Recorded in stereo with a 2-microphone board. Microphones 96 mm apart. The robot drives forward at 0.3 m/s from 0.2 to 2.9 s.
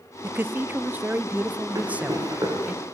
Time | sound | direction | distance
0.2 | a man speaking | 25° right (ahead or behind) | 0.8 m
1.8 | running footsteps | 40° right (ahead or behind) | 7 m